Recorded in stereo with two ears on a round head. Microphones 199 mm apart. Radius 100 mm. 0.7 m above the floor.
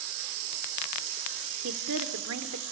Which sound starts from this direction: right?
A woman speaking, at 1.6 s.